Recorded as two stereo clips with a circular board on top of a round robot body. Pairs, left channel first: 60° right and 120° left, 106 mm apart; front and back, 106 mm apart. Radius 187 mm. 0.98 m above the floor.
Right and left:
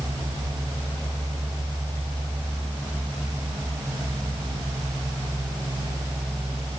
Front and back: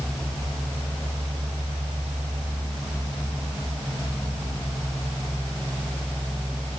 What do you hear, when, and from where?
Only background noise.